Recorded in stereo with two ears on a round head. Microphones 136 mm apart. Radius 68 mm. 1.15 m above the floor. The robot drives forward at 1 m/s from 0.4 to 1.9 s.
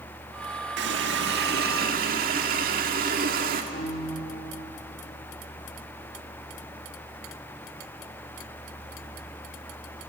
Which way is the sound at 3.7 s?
45° left (ahead or behind).